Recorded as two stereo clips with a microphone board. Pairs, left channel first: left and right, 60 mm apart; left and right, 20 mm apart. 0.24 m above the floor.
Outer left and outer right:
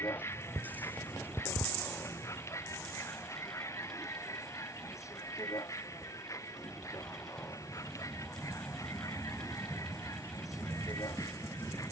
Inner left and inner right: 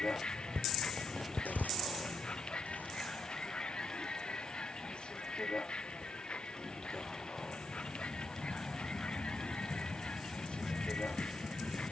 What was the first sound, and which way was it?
A vehicle, 45° left (ahead or behind).